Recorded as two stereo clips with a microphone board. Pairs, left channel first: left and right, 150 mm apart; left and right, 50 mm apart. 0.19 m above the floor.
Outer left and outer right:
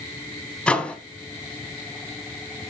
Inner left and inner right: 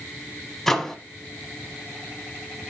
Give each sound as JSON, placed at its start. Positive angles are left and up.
{"t": 0.7, "sound": "a microwave", "side_deg": 5, "distance_m": 0.8}